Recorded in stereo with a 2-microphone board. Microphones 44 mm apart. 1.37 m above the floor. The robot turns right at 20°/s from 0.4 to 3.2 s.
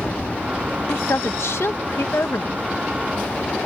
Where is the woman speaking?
75° left; by 2.6 s 110° left.